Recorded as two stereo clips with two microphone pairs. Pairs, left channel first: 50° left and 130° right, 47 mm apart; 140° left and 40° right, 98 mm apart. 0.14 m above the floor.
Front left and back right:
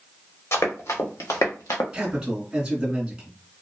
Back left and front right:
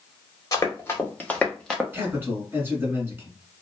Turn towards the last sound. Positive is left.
turn(degrees=-70)